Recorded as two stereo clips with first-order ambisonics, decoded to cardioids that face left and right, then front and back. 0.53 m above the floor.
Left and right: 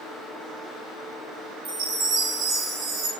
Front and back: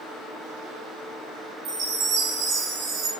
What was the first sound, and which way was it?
A chime, 130° right.